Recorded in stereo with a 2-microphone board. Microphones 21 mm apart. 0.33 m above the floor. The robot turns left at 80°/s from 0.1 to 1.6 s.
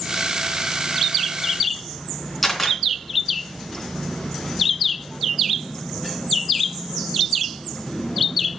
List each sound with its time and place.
2.4 s a camera shutter: 5° right (ahead or behind), 3.5 m